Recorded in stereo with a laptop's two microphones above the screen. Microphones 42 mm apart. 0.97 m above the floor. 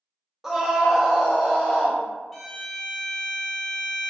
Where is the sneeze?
No sneeze in this recording.